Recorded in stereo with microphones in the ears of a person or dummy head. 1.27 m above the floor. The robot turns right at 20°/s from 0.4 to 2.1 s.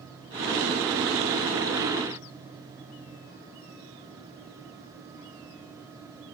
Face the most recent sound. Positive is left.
No sound to turn to.